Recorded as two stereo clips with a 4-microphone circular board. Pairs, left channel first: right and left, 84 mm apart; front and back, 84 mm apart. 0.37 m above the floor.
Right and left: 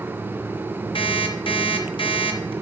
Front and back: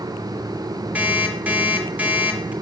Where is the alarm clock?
110° right, 1.3 m.